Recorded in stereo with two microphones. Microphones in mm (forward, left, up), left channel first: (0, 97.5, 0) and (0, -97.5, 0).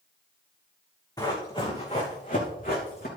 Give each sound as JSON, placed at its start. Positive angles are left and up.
{"t": 1.2, "sound": "running footsteps", "side_deg": 20, "distance_m": 3.0}